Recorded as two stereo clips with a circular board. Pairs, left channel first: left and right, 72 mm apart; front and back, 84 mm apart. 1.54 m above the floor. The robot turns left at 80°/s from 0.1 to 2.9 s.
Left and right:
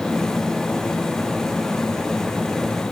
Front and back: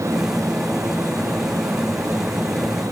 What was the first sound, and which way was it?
Only background noise.